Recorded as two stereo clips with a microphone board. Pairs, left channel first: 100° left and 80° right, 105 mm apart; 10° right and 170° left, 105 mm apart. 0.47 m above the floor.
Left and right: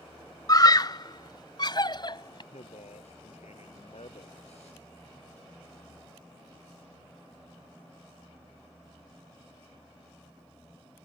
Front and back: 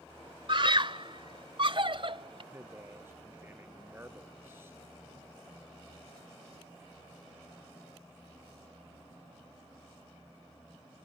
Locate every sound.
0.5 s a scream: 145° left; by 2.4 s 140° left
2.5 s a man speaking: 100° left